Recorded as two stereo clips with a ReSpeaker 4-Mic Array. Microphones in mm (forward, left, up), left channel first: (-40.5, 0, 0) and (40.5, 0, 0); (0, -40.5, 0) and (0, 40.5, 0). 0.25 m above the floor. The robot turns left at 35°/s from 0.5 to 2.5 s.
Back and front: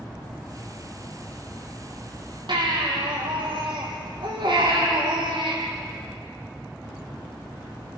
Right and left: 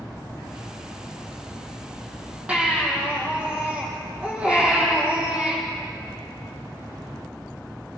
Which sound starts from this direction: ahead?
A baby crying, at 2.5 s.